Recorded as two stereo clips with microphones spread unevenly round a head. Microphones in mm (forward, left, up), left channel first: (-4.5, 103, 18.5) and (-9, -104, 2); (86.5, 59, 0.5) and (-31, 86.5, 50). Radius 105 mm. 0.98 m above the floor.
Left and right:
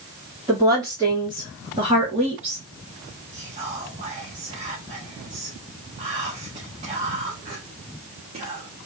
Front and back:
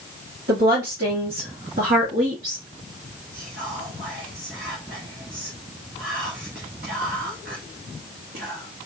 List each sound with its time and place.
0.5 s a woman speaking: 165° right, 3 m; by 2.6 s 145° right, 2.0 m
3.3 s whispering: 150° right, 1.4 m